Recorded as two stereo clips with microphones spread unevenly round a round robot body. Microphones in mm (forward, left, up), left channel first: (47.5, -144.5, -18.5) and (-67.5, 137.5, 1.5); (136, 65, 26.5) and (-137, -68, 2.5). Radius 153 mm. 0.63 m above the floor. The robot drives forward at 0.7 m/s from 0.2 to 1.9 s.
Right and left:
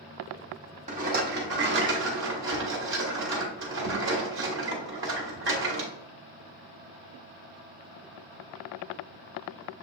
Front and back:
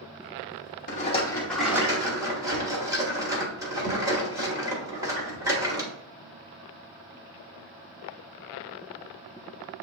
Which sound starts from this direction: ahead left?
A rattle, at 0.9 s.